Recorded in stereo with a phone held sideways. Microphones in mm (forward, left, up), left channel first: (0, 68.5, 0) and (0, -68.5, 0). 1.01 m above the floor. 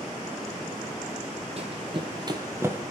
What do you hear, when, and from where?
1.6 s running footsteps: 50° right (ahead or behind), 1.5 m; by 2.8 s 15° right (ahead or behind), 1.0 m